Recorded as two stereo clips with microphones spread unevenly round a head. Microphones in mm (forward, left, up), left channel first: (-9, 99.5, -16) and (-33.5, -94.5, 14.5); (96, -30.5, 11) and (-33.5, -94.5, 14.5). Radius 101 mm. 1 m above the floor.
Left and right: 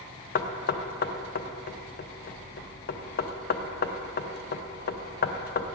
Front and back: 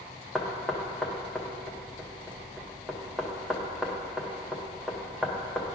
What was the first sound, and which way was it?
Knocking, 115° left.